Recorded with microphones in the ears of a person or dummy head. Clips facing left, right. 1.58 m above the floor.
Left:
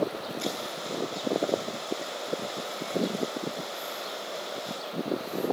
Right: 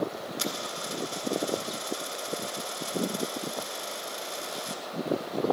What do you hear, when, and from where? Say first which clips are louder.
0.4 s a dropped coin: left 2 dB; 65° right (ahead or behind), 3 m